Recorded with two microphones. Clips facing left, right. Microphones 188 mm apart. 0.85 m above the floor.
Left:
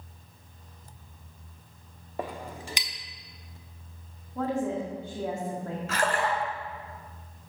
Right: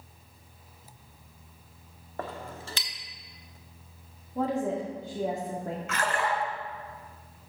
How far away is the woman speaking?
About 1.8 m.